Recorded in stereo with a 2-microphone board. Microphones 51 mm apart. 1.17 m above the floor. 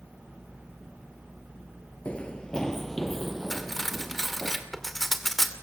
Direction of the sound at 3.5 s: 5° left (ahead or behind).